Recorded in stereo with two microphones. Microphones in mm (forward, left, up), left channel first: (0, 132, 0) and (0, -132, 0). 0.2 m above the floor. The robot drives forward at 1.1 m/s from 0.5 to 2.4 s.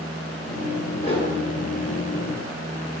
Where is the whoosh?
20° left (ahead or behind), 3 m; by 1.3 s 25° left (ahead or behind), 3 m.